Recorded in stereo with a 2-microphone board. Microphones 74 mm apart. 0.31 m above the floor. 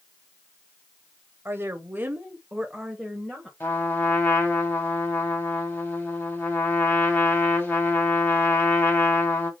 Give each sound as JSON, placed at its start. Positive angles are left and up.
{"t": 1.4, "sound": "a woman speaking", "side_deg": -30, "distance_m": 1.1}
{"t": 3.6, "sound": "a trumpet", "side_deg": 30, "distance_m": 2.0}